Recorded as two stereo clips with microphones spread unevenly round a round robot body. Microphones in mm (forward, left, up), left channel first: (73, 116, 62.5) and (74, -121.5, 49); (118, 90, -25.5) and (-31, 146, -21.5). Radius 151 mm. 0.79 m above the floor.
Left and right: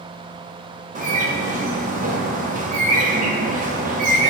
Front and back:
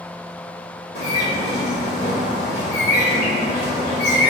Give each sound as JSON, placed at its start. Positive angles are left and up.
{"t": 0.9, "sound": "a bird", "azimuth_deg": -35, "distance_m": 1.5}